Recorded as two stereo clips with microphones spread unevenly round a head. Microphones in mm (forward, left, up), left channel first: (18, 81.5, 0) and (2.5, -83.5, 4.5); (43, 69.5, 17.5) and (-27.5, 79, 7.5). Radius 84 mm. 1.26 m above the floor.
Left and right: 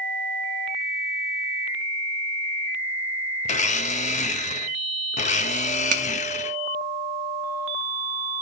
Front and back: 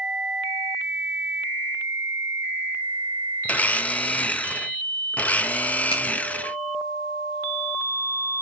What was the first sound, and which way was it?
A blender, 45° left.